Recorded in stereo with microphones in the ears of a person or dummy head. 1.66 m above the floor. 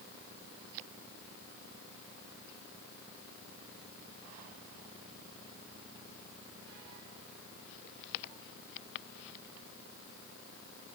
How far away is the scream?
No scream in this recording.